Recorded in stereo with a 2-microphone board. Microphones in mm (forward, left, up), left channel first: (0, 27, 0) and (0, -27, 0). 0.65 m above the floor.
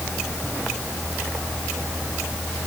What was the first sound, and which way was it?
Only background noise.